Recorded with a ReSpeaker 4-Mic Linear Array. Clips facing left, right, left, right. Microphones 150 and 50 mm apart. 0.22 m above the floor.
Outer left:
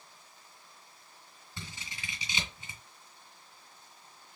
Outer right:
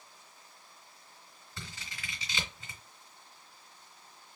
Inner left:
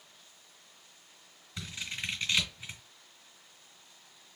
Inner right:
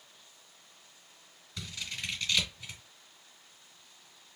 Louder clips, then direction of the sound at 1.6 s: Outer left 1 dB, inner left 1 dB; 25° left (ahead or behind).